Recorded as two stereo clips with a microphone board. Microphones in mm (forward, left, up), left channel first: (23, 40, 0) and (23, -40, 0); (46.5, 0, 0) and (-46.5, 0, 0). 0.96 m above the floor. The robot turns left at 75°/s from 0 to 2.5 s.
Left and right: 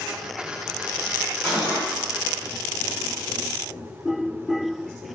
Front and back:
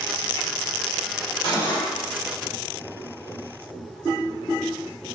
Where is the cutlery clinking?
5° left, 1.7 m; by 1.9 s 25° right, 1.7 m.